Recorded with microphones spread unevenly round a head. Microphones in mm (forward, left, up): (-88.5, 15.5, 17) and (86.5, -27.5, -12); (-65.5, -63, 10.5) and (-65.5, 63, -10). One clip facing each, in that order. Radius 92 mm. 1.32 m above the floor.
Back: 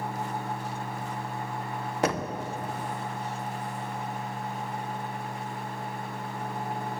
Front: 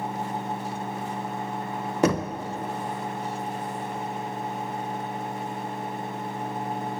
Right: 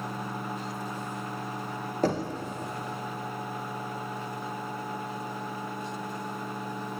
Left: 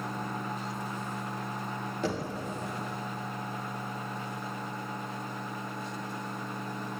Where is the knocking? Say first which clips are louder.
Front 5 dB, right 6 dB; 25° right, 0.8 m.